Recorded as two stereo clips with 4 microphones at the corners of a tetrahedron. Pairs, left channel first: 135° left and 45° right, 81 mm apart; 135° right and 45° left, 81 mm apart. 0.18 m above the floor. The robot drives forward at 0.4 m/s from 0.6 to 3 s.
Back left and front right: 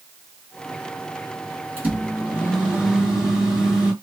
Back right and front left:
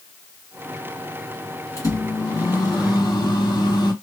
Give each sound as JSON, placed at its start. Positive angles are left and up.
{"t": 1.8, "sound": "a microwave", "azimuth_deg": -105, "distance_m": 1.3}